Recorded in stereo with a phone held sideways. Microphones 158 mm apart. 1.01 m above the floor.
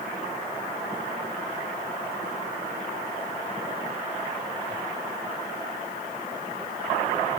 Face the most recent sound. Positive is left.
No sound to turn to.